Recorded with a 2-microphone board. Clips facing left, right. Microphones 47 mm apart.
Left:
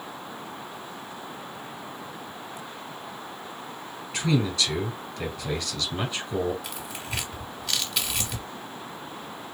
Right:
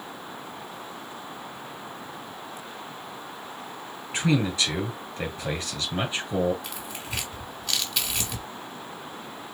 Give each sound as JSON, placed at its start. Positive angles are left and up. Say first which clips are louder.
{"t": 4.1, "sound": "a man speaking", "louder": "right 1 dB", "side_deg": -30, "distance_m": 2.0}
{"t": 6.6, "sound": "tearing paper", "louder": "left 1 dB", "side_deg": 5, "distance_m": 2.0}